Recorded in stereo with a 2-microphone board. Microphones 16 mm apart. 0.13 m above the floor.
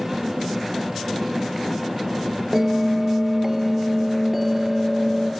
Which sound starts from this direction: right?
A bell, at 2.5 s.